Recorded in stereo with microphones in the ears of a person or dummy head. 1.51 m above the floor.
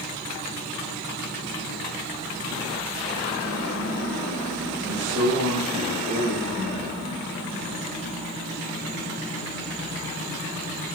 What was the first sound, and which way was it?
A man speaking, 85° right.